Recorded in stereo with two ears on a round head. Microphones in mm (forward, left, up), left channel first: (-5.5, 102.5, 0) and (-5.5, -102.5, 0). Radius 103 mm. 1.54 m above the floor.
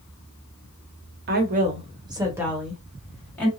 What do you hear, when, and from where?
1.3 s a woman speaking: 50° right (ahead or behind), 0.9 m; by 3.5 s 10° left (ahead or behind), 1.5 m